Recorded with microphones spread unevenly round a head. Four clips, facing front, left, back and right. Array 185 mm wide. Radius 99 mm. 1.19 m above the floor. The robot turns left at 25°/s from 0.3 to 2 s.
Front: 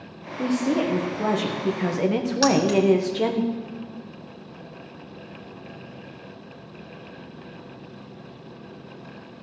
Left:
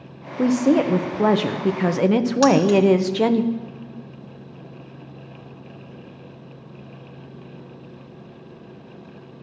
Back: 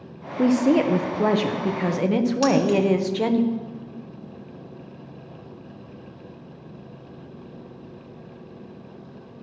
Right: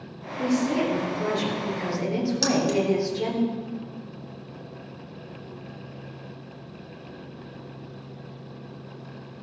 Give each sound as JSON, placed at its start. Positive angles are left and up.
{"t": 0.4, "sound": "a woman speaking", "azimuth_deg": 125, "distance_m": 0.9}
{"t": 2.4, "sound": "keys jangling", "azimuth_deg": 40, "distance_m": 1.2}